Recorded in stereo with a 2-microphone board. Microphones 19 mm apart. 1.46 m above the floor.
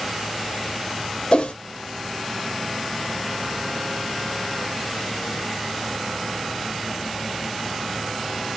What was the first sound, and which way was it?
A whoosh, 55° left (ahead or behind).